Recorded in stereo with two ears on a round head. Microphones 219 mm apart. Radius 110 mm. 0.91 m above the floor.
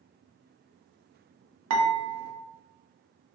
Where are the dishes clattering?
75° right (ahead or behind), 0.6 m.